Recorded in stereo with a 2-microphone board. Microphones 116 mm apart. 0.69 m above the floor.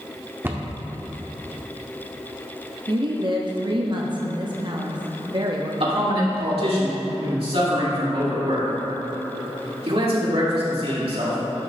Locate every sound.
0.4 s a cupboard door: 20° right (ahead or behind), 0.7 m
2.9 s a woman speaking: 45° right (ahead or behind), 0.6 m
5.8 s a man speaking: 55° right (ahead or behind), 2 m